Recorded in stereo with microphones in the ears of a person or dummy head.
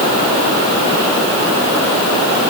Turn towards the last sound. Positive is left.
No sound to turn to.